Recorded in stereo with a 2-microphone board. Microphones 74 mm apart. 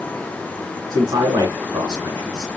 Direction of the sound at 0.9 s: 65° right (ahead or behind).